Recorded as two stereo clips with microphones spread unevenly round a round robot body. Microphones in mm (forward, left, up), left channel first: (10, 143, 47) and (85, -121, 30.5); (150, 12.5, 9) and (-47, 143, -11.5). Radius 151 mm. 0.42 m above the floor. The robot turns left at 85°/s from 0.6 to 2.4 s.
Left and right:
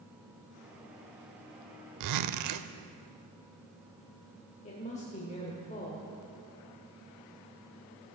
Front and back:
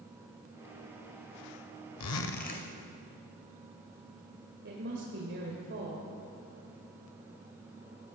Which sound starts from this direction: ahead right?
A zipper, at 2.0 s.